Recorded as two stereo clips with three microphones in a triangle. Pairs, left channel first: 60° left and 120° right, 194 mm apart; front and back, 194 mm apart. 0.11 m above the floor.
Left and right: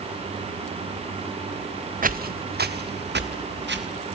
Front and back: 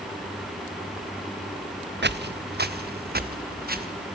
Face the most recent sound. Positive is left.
turn(degrees=-145)